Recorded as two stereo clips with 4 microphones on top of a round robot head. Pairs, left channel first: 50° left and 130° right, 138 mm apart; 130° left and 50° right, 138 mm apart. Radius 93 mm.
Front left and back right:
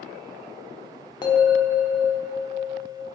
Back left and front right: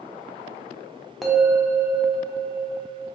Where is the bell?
45° left, 0.6 m.